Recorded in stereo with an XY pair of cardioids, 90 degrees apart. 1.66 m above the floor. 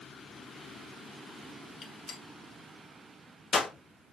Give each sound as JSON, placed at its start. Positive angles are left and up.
{"t": 1.8, "sound": "a gunshot", "azimuth_deg": 60, "distance_m": 2.0}